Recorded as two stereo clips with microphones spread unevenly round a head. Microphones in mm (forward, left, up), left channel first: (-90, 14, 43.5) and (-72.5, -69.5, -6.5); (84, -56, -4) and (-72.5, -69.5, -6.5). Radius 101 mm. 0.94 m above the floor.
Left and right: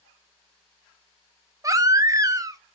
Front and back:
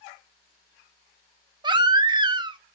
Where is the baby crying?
115° right, 1.3 m.